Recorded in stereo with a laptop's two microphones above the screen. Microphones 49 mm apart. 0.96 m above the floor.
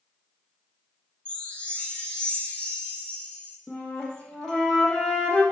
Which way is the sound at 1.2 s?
20° left (ahead or behind).